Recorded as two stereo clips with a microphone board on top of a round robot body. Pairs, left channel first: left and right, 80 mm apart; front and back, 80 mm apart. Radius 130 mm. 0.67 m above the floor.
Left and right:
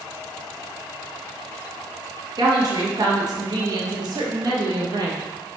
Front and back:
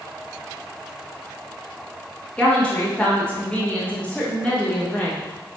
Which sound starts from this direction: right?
A woman speaking, at 2.4 s.